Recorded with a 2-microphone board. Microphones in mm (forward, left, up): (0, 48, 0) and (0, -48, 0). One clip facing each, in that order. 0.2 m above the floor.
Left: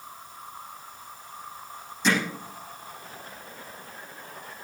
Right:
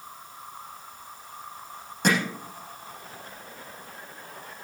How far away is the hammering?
About 7 m.